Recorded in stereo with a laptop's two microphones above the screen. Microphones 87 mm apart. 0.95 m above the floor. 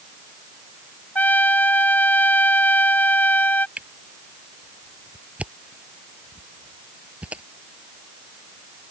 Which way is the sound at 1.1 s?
20° left (ahead or behind).